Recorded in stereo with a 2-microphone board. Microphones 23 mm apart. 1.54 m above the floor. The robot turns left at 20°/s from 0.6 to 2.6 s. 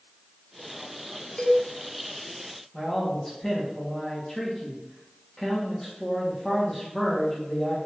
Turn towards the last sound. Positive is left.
turn(degrees=20)  # may be behind; listen again after turning